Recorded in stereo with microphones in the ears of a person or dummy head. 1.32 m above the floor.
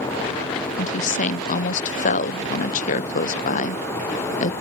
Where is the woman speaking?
40° left (ahead or behind).